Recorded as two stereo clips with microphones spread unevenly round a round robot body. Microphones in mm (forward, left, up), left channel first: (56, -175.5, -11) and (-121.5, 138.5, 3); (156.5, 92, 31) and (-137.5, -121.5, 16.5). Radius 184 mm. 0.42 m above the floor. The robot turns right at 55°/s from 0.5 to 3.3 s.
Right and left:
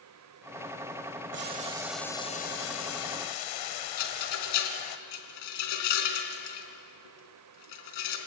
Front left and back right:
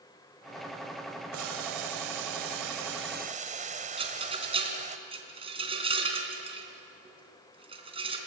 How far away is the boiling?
About 1.6 m.